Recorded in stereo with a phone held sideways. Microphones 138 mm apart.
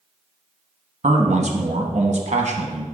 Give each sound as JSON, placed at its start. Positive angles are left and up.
{"t": 1.0, "sound": "a man speaking", "side_deg": -55, "distance_m": 1.1}